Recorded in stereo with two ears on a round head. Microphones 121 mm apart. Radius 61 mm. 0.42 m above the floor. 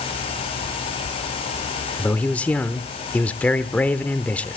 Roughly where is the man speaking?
Centre.